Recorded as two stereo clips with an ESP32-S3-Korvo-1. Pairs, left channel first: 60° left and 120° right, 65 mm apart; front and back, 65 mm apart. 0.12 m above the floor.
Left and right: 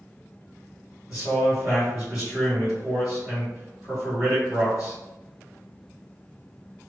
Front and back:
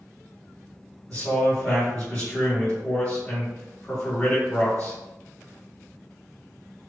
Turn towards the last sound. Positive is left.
turn(degrees=-70)